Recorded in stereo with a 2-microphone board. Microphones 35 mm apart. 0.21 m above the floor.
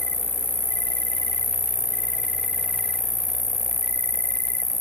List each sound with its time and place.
0.0 s an insect: 80° left